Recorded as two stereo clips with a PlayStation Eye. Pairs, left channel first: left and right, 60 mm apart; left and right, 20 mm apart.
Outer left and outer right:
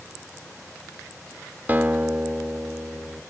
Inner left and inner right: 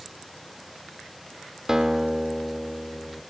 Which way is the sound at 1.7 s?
30° right (ahead or behind).